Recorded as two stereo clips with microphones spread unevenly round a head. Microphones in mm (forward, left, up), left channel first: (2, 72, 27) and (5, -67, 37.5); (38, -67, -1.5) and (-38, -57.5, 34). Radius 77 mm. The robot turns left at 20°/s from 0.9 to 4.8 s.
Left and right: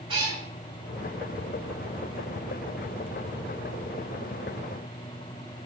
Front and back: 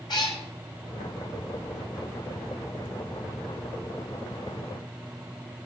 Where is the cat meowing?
45° right, 3 m.